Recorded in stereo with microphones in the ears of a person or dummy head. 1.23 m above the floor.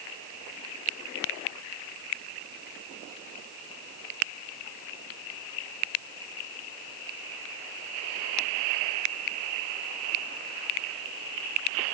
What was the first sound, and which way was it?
Only background noise.